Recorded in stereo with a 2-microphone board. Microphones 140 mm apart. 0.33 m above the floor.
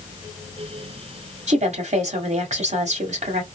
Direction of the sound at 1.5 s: 55° right (ahead or behind).